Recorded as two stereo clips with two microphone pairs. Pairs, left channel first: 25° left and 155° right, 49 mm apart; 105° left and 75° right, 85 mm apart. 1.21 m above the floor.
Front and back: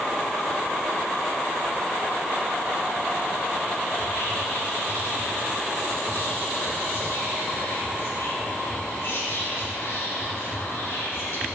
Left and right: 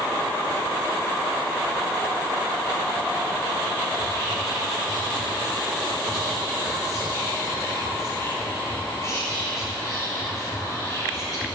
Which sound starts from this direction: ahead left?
Whispering, at 3.9 s.